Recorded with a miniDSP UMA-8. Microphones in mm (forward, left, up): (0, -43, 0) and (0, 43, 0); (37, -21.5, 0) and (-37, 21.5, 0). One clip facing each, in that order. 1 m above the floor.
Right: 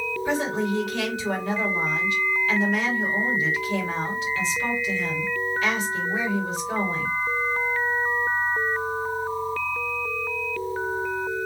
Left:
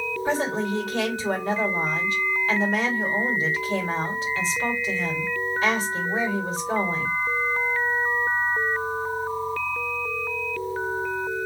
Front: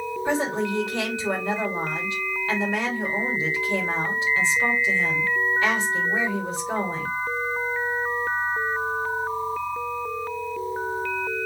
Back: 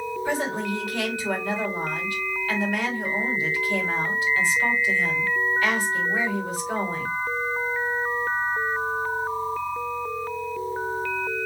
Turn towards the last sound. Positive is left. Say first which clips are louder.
# even, front 3 dB
turn(degrees=35)